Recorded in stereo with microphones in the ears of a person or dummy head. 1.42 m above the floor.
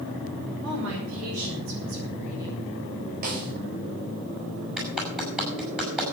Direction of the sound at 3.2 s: 50° right (ahead or behind).